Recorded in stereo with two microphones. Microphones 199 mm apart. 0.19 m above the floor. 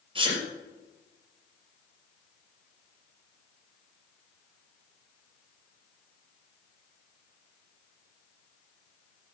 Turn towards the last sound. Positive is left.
turn(degrees=-25)  # may be behind; listen again after turning